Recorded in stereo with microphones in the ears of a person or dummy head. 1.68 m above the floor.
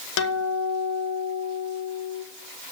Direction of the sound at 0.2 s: 75° left (ahead or behind).